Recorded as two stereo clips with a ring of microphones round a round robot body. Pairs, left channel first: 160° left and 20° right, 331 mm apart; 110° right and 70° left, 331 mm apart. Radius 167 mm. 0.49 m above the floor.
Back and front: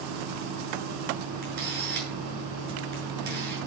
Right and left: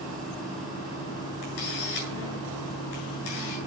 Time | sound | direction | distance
1.4 | a camera shutter | 85° right | 8 m